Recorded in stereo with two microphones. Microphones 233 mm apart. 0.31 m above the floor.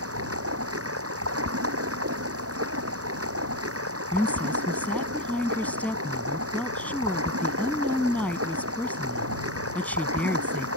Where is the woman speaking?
5° left (ahead or behind).